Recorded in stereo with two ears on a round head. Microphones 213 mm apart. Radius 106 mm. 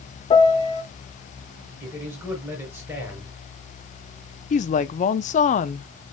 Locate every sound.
0.3 s a piano: 20° left (ahead or behind), 0.6 m
1.8 s a man speaking: 10° right (ahead or behind), 4 m
4.5 s a woman speaking: 30° left (ahead or behind), 0.5 m